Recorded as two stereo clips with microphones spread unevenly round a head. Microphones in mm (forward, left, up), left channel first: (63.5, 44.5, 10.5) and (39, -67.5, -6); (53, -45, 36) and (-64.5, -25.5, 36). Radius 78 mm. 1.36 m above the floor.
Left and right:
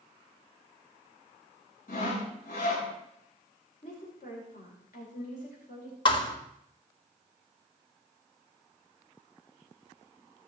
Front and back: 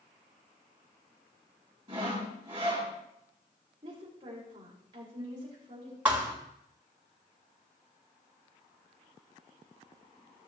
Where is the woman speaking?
110° left, 6.5 m.